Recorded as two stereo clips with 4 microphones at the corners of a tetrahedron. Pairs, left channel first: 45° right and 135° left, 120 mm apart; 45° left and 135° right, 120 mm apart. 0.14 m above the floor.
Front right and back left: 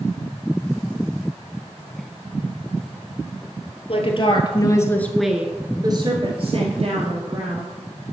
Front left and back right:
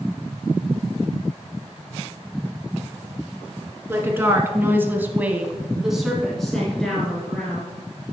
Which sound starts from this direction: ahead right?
A woman speaking, at 3.9 s.